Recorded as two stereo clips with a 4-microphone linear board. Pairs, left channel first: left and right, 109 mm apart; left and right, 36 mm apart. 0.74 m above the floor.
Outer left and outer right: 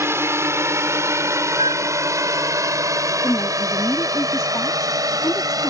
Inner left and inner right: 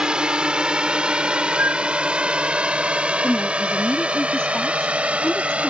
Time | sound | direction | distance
0.0 | a drone | 25° right (ahead or behind) | ?
1.6 | a flute | 65° right (ahead or behind) | ?
3.2 | a woman speaking | 25° left (ahead or behind) | ?